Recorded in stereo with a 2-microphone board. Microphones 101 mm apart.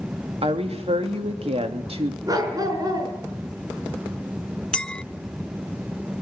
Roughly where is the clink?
Centre.